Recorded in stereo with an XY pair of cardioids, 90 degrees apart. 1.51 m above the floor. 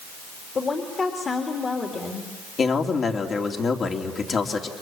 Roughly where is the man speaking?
Ahead left.